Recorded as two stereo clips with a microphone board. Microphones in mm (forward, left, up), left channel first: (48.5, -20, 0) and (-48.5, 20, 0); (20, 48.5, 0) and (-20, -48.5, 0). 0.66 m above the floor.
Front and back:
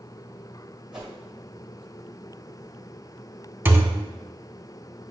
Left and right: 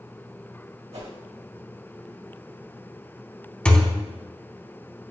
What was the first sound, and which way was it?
A whoosh, 120° right.